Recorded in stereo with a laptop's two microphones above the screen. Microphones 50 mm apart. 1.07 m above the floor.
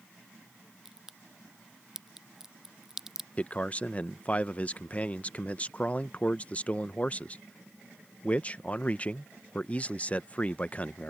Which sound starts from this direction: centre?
A crack, at 0.8 s.